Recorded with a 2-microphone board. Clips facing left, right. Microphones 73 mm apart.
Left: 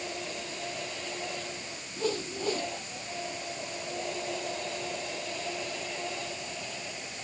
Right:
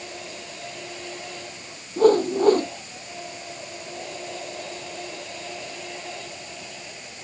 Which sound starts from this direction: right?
A whoosh, at 2.0 s.